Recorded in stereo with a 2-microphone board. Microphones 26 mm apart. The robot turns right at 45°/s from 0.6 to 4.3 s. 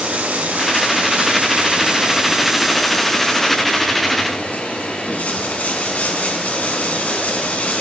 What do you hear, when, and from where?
0.0 s running water: 95° right, 2.5 m; by 7.8 s 70° left, 2.5 m